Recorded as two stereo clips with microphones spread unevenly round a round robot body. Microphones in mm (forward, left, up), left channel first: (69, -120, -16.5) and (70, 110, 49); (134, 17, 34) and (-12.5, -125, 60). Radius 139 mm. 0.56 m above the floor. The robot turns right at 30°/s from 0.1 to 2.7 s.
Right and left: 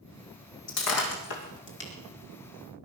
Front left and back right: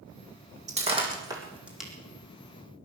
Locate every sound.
0.7 s breaking glass: 80° right, 3.5 m; by 1.9 s 45° right, 3.5 m